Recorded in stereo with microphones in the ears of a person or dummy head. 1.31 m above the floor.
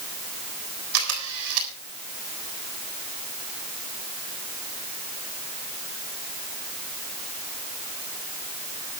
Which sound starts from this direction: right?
A camera shutter, at 0.9 s.